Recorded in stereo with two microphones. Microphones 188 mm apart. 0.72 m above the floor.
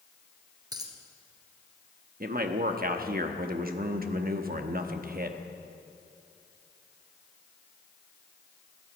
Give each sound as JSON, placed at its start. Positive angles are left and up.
{"t": 0.7, "sound": "a dropped coin", "side_deg": -20, "distance_m": 1.5}
{"t": 2.2, "sound": "a man speaking", "side_deg": -50, "distance_m": 1.0}